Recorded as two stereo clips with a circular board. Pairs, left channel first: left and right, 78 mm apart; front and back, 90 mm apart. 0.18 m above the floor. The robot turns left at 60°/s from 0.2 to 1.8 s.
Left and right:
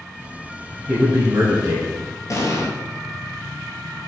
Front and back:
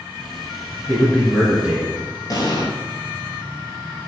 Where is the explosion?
45° left, 0.9 m.